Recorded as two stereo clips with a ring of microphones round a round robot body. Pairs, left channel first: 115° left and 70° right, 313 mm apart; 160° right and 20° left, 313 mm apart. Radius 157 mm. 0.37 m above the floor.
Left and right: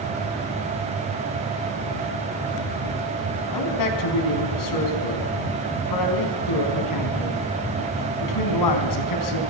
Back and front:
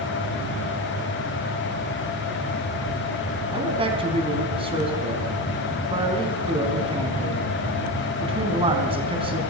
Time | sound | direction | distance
3.5 | a man speaking | 95° left | 4 m